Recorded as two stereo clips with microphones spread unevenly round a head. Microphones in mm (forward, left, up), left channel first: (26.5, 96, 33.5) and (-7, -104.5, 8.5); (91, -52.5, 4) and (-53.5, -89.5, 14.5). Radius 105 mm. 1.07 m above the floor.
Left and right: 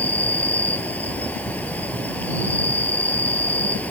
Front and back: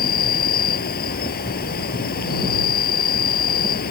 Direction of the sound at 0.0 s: Straight ahead.